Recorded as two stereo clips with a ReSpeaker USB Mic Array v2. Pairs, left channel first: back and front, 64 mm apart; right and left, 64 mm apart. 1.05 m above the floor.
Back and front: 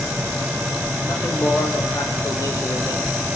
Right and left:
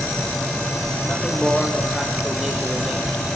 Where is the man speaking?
155° right, 1.4 m; by 3.4 s 130° left, 0.7 m.